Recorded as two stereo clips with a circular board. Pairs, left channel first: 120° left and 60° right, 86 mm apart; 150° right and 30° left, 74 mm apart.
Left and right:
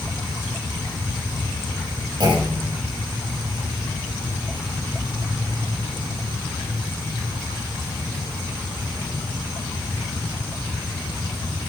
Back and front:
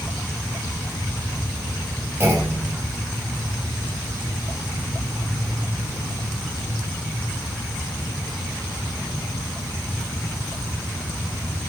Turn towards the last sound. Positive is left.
turn(degrees=-30)